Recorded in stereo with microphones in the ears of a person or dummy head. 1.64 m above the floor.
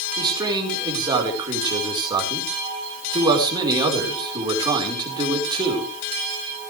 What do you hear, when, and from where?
0.2 s a man speaking: 20° right (ahead or behind), 4.5 m